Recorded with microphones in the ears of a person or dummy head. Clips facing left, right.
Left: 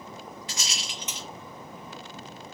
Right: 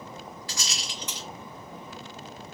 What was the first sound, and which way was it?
A rattle, 20° left (ahead or behind).